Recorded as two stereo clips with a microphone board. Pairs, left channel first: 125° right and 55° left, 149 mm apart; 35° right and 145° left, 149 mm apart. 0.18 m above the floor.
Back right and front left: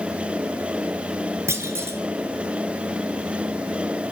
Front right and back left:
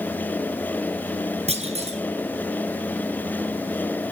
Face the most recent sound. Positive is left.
turn(degrees=125)